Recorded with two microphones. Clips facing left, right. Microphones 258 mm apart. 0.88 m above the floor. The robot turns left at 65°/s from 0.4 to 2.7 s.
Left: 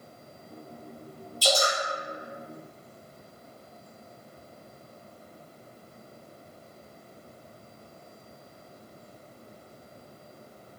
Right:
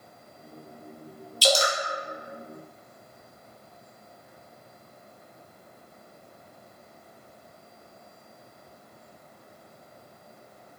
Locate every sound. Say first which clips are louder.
1.4 s dripping: right 2 dB; 80° right, 0.6 m